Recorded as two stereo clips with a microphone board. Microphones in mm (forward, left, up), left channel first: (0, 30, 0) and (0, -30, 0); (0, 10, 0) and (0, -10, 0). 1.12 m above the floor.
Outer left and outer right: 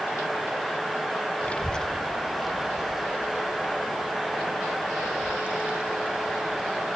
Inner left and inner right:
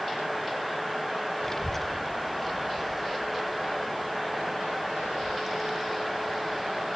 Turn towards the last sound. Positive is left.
turn(degrees=-20)  # may be behind; listen again after turning